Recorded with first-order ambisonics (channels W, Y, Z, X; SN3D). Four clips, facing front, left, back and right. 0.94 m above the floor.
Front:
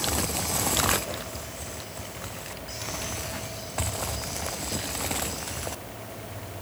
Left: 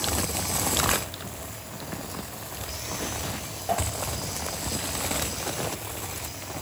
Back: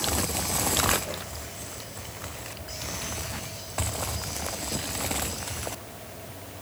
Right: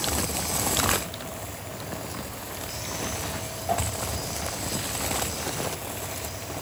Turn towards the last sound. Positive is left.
No sound to turn to.